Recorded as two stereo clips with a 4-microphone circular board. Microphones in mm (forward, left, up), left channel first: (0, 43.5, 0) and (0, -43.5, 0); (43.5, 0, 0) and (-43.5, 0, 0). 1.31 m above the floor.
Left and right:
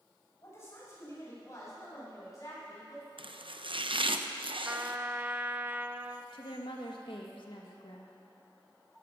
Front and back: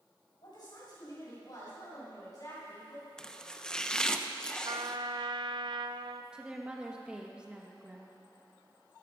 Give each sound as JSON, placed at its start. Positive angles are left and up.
{"t": 0.4, "sound": "a woman speaking", "azimuth_deg": 30, "distance_m": 6.5}
{"t": 3.2, "sound": "chopping", "azimuth_deg": -80, "distance_m": 0.7}
{"t": 4.7, "sound": "a trumpet", "azimuth_deg": -155, "distance_m": 0.6}
{"t": 6.3, "sound": "a woman speaking", "azimuth_deg": 100, "distance_m": 1.9}